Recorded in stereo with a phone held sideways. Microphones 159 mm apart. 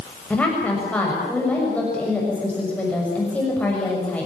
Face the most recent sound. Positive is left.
turn(degrees=10)  # may be behind; listen again after turning